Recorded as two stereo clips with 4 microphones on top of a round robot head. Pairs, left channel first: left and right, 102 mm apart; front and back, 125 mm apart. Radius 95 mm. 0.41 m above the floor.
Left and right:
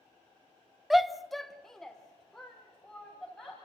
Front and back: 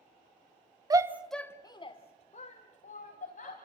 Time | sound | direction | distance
0.9 | a shout | straight behind | 1.1 m